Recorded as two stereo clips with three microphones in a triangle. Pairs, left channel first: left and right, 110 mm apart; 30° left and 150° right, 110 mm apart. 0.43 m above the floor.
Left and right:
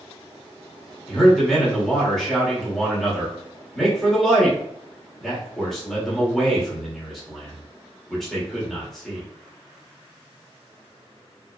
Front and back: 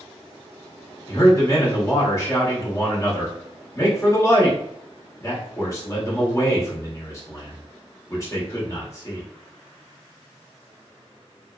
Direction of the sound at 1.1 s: 5° left.